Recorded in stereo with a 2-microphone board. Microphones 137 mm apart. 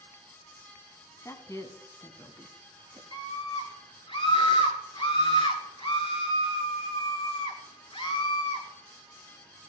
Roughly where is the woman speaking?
Left.